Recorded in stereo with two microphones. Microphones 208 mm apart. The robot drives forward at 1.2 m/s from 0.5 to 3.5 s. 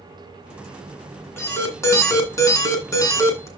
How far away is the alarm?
About 2.5 m.